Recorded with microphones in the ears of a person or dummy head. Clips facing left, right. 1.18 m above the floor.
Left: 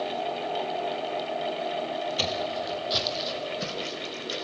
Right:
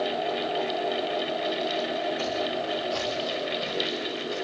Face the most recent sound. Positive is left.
turn(degrees=40)  # may be behind; listen again after turning